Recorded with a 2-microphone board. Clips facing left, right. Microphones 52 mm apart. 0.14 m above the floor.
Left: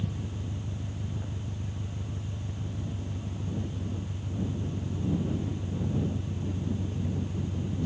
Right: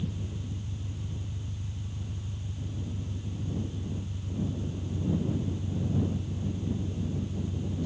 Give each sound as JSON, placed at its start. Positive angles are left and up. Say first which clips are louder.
{"t": 0.0, "sound": "an engine running", "louder": "left 1 dB", "side_deg": 75}